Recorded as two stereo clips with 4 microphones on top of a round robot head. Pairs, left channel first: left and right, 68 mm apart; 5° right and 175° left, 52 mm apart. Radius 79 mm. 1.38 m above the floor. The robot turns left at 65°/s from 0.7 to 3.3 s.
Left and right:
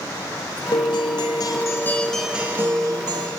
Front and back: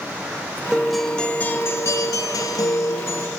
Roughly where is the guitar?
Left.